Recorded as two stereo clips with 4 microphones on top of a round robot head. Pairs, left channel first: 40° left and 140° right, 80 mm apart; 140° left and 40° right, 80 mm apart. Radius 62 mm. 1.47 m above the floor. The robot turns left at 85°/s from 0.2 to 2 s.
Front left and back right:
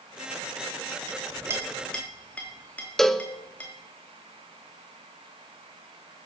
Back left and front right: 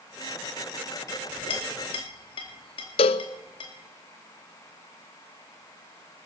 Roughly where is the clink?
Behind.